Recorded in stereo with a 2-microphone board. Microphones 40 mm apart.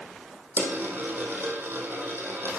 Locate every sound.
0.6 s a dropped coin: 60° right (ahead or behind), 2.5 m